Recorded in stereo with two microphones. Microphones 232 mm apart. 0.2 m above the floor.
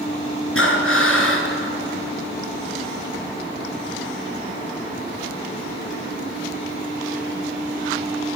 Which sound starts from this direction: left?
Breathing, at 0.6 s.